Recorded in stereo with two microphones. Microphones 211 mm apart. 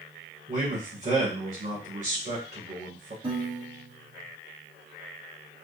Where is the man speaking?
35° right (ahead or behind), 1.4 m.